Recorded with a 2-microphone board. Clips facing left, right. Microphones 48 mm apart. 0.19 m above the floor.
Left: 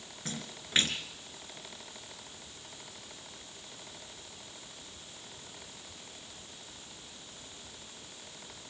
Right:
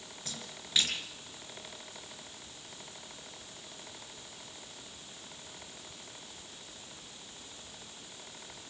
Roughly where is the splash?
Left.